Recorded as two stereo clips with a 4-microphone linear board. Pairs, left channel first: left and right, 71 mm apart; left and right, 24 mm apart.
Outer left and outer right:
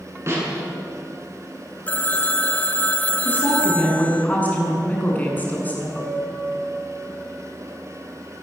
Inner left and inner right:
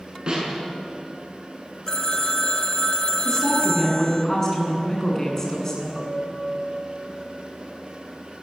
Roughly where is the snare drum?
Right.